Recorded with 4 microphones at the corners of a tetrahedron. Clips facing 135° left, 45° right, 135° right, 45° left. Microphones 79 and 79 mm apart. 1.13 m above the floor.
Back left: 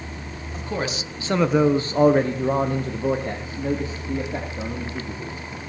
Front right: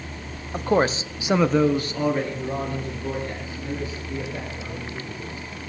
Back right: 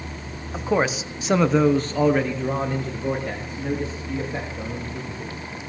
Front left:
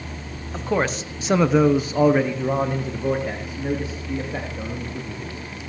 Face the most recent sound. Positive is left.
turn(degrees=125)